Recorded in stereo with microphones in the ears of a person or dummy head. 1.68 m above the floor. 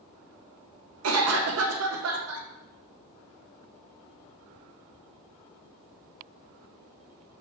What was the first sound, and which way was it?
A cough, 80° right.